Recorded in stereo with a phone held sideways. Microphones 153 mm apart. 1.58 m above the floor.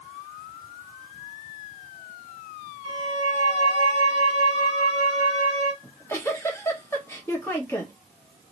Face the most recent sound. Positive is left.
turn(degrees=15)  # may be behind; listen again after turning